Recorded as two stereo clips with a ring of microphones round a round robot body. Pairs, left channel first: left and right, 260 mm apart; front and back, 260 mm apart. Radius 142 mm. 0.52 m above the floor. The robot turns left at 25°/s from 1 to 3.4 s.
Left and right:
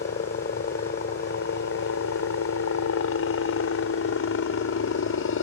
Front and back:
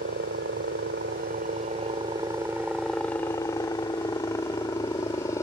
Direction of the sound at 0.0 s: 135° left.